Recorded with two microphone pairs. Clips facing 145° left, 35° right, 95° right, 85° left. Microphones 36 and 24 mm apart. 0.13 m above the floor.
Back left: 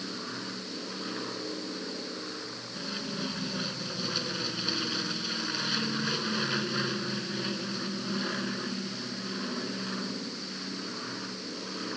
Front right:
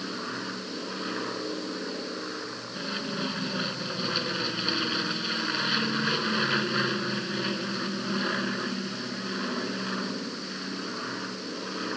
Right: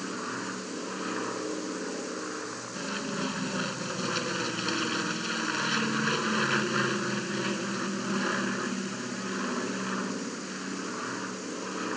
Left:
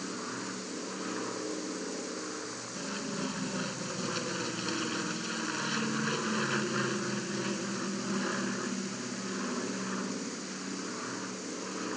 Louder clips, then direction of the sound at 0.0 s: Front right 4 dB, right 3 dB; 65° right.